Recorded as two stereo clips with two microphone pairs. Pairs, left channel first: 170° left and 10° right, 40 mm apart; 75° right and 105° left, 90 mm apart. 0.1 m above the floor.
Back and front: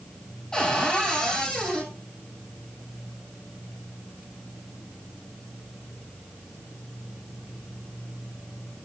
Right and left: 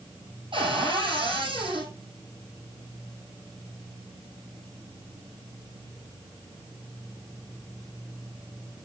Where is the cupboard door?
100° left, 4 m.